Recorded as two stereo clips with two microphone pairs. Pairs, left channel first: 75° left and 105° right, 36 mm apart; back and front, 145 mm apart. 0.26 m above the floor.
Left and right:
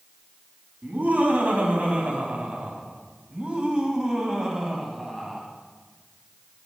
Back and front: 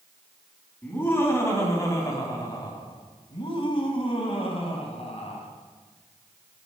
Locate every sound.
0.8 s laughter: 110° right, 2.5 m; by 5.5 s 175° left, 2.5 m